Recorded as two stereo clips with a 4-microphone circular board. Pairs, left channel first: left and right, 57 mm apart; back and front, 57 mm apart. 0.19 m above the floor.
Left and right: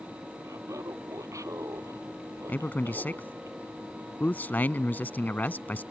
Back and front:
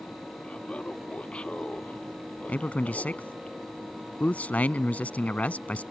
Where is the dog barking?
I don't hear a dog barking.